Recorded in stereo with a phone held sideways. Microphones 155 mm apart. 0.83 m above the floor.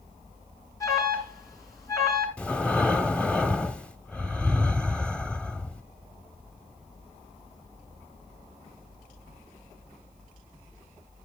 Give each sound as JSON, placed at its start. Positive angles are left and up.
{"t": 0.8, "sound": "an alarm", "side_deg": 20, "distance_m": 4.5}
{"t": 2.4, "sound": "breathing", "side_deg": 5, "distance_m": 0.8}